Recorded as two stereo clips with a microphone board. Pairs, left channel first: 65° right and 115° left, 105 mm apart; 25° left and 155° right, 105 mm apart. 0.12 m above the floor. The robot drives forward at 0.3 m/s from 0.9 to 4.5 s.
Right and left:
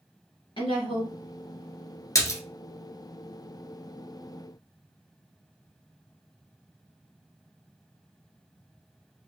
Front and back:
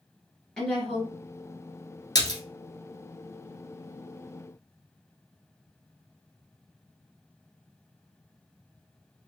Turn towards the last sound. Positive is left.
turn(degrees=-90)